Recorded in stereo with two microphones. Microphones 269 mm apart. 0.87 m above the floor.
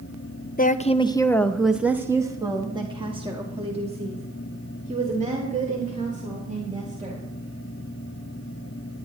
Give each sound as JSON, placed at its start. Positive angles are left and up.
{"t": 0.6, "sound": "a woman speaking", "side_deg": 35, "distance_m": 0.5}